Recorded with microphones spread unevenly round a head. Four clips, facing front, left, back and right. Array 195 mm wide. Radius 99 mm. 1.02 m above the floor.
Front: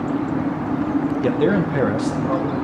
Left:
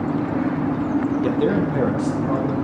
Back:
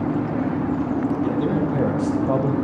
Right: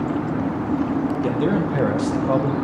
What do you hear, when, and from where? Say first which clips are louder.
1.2 s a man speaking: left 1 dB, front 3 dB; 5° right, 1.1 m; by 2.5 s 135° right, 0.9 m